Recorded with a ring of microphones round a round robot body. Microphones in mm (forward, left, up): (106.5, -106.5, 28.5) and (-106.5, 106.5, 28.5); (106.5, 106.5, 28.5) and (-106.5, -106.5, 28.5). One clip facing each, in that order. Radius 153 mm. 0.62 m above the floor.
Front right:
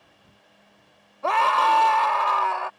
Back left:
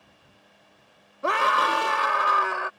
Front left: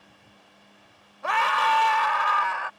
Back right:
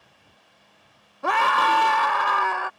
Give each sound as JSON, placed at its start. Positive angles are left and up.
{"t": 1.2, "sound": "a scream", "azimuth_deg": -155}